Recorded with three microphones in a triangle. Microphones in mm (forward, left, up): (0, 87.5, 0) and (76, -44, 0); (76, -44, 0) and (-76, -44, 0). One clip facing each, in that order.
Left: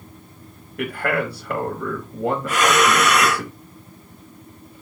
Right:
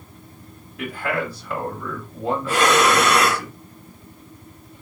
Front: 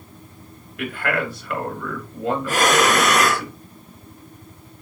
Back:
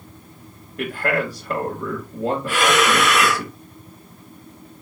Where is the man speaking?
135° left, 3 m.